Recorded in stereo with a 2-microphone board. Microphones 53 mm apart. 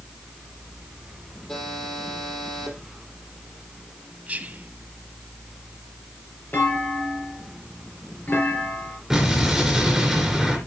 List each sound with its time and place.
1.5 s a buzzer: 15° left (ahead or behind), 6 m
4.3 s whispering: 30° right (ahead or behind), 1.2 m
6.5 s a clunk: 35° left (ahead or behind), 4.5 m
9.1 s an explosion: 5° right (ahead or behind), 3.5 m